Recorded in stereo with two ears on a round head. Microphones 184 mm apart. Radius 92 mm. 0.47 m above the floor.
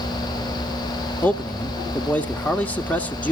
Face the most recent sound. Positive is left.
turn(degrees=10)  # may be behind; listen again after turning